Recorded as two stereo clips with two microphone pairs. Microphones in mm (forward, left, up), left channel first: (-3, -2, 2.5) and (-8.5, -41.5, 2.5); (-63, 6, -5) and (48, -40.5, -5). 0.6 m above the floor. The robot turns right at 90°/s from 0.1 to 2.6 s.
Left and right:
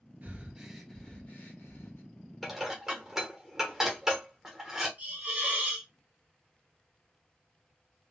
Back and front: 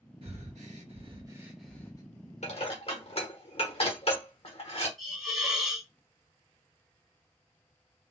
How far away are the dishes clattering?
About 1.1 m.